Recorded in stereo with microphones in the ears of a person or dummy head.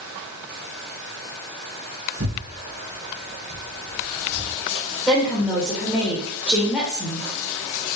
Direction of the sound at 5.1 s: 5° left (ahead or behind).